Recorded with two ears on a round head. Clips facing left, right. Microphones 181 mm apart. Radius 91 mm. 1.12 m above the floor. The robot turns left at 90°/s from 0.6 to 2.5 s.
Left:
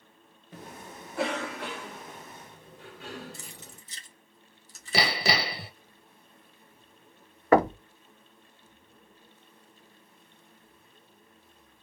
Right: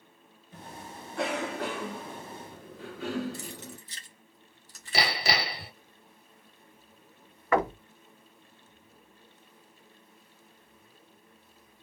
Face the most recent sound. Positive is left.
turn(degrees=30)  # may be behind; listen again after turning